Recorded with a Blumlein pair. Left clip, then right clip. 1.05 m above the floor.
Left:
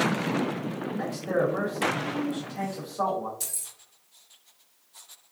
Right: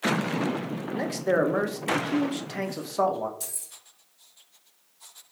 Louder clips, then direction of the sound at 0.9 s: Right 4 dB; 30° right.